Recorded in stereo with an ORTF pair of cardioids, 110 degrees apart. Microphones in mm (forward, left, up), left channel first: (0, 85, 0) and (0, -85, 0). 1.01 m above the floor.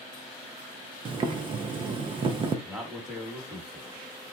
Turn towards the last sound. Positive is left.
turn(degrees=-5)